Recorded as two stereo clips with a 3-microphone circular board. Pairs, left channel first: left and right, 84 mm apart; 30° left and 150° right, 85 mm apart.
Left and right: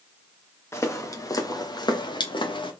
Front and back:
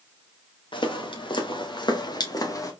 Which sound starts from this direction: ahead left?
Footsteps, at 0.7 s.